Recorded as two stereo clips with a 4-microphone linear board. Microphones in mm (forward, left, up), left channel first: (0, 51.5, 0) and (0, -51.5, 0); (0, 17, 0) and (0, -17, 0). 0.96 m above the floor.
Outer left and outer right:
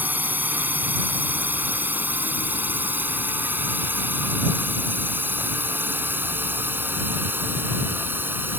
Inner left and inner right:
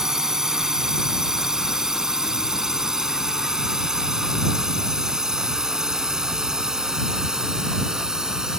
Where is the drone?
15° right (ahead or behind); by 8.6 s 20° right (ahead or behind).